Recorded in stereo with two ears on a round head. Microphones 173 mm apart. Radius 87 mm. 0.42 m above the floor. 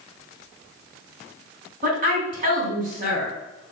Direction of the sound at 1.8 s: 45° right (ahead or behind).